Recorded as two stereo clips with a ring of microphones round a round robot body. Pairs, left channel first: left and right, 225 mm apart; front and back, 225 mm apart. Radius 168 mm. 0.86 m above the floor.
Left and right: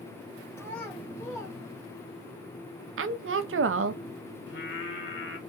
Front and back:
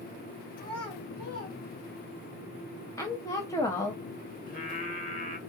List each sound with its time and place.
0.6 s a child speaking: 5° left, 2 m; by 2.3 s 30° left, 1.7 m
3.0 s a woman speaking: 75° right, 0.7 m
4.5 s singing: 55° left, 1.4 m